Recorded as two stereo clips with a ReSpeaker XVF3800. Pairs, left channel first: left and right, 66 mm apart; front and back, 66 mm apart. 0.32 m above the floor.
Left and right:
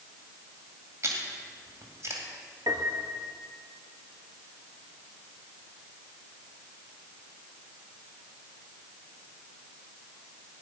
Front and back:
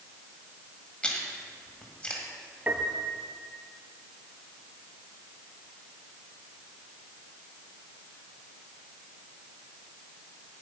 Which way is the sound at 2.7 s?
115° right.